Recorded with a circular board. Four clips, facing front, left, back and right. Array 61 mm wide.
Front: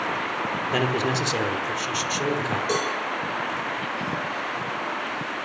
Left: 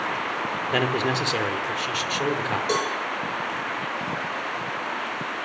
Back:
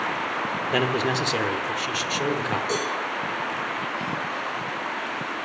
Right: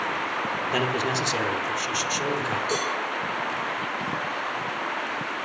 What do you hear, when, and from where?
0.7 s a man speaking: 120° left, 1.2 m
2.7 s a cowbell: 65° left, 5 m